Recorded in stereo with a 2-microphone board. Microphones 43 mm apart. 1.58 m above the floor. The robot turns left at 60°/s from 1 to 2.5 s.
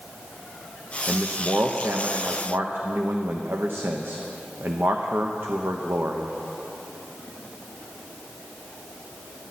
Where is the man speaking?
30° right, 0.9 m; by 6.3 s 115° right, 0.9 m.